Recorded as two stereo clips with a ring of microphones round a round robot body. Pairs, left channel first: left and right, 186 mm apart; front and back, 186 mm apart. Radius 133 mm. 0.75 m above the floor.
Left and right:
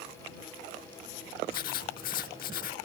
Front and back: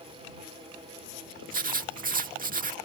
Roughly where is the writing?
Behind left.